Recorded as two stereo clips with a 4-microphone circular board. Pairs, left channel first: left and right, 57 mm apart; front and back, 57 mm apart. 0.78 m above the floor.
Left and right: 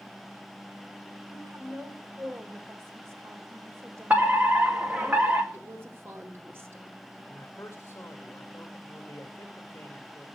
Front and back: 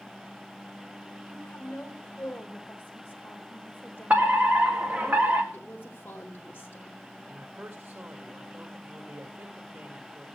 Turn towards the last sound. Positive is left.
turn(degrees=140)